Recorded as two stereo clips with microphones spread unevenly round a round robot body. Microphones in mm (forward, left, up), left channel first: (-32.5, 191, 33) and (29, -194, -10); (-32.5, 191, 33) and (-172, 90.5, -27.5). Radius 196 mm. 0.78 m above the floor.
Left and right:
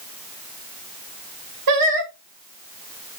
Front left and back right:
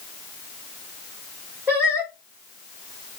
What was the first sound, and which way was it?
Singing, 75° right.